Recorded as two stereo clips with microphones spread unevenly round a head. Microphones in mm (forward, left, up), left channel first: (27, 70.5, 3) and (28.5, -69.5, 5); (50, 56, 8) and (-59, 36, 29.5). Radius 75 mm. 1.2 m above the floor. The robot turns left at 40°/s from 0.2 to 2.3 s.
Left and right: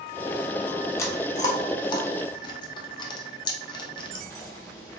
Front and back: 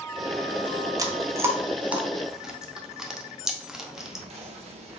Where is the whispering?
165° left, 0.7 m.